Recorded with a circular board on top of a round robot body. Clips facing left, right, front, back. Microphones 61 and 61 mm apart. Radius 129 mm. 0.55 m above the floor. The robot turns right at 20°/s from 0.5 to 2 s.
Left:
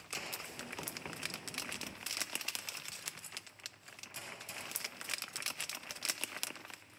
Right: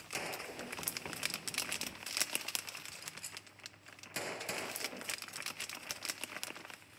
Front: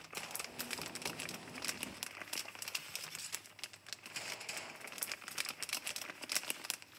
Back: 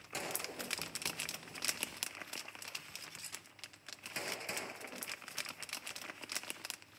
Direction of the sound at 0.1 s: 155° right.